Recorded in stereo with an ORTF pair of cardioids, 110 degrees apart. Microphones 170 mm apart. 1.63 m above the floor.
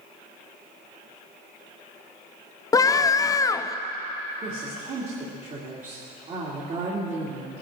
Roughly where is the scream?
Ahead.